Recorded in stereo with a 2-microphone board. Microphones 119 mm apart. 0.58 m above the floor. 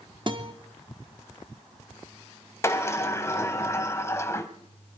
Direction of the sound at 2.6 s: 25° left (ahead or behind).